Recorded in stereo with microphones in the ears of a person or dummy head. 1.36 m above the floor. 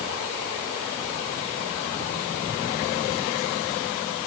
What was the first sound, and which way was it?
Only background noise.